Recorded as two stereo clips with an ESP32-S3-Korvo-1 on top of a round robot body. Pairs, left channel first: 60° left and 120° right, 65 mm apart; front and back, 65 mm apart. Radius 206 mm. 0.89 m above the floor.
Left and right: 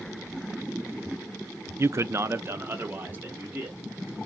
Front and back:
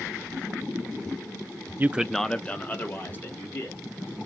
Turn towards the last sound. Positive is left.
turn(degrees=-55)